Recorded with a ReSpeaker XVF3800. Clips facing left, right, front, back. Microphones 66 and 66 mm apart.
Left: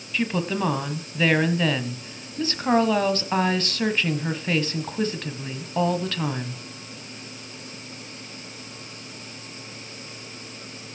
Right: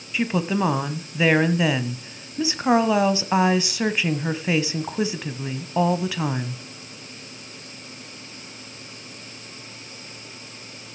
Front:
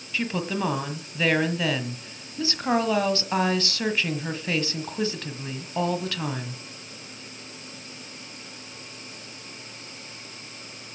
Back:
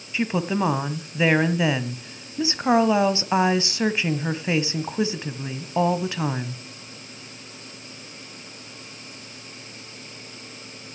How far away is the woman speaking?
About 1.0 m.